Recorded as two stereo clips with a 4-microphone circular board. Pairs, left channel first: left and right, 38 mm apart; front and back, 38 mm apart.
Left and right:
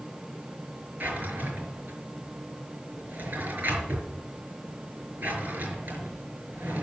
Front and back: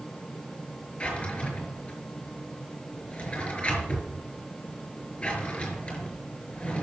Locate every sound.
1.0 s a drawer: 60° right, 5 m